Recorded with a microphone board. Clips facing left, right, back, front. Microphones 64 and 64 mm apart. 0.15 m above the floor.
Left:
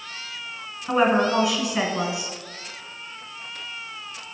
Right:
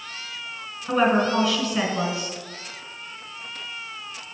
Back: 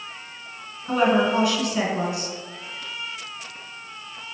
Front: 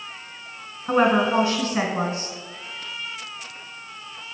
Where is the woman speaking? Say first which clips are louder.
Left 1 dB, front 1 dB; 20° left, 1.2 m.